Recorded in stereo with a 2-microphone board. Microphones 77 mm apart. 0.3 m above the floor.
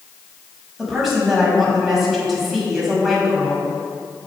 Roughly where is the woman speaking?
Centre.